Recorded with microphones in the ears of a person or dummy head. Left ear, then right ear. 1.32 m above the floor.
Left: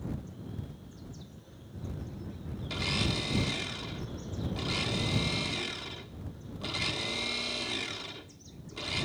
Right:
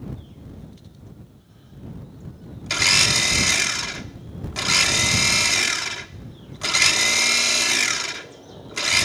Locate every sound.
2.7 s a blender: 60° right (ahead or behind)